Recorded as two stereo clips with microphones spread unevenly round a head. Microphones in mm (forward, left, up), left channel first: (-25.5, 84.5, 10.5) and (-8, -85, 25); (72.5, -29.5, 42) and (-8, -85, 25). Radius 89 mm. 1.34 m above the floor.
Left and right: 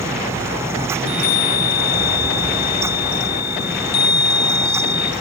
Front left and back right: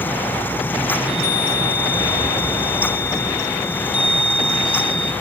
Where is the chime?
70° left, 1.1 m.